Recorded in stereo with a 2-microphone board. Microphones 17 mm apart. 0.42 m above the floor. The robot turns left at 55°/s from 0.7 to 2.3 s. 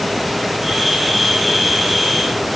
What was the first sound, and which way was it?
Only background noise.